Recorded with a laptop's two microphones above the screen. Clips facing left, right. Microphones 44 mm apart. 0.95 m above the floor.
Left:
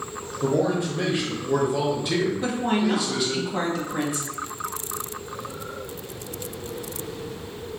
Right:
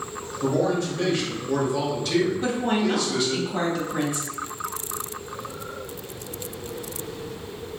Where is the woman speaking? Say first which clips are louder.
Even; 5° left (ahead or behind), 1.0 m.